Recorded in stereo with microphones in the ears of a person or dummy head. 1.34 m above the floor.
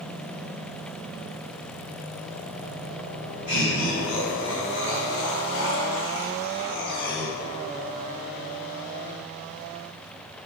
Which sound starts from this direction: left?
Laughter, at 3.5 s.